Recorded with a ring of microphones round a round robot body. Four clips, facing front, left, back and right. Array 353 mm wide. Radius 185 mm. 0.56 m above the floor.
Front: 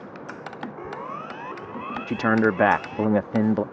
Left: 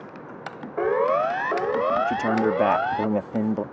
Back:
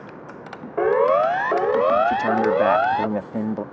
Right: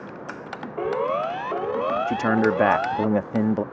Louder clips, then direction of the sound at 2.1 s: Right 1 dB, back 2 dB; 30° right.